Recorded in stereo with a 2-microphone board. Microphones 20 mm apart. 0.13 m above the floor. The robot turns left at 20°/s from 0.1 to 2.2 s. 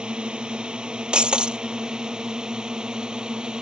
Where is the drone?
65° right (ahead or behind); by 3.6 s 55° right (ahead or behind).